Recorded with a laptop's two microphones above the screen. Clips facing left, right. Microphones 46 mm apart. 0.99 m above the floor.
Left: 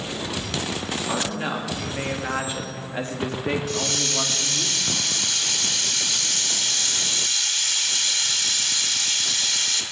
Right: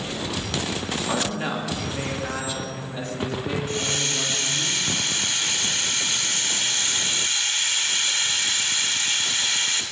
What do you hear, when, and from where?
1.1 s a woman speaking: 5° right (ahead or behind), 1.8 m; by 4.7 s 70° left (ahead or behind), 2.5 m
3.7 s a hiss: 25° right (ahead or behind), 1.2 m